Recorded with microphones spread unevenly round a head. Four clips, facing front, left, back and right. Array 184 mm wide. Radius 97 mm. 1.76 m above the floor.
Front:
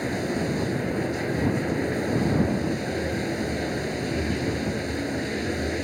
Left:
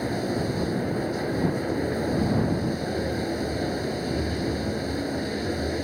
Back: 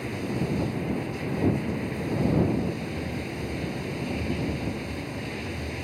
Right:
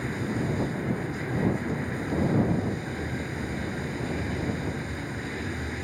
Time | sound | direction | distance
0.0 | running water | 40° left | ?